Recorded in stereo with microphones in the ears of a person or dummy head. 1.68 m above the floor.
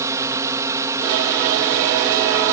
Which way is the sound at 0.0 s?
20° right (ahead or behind).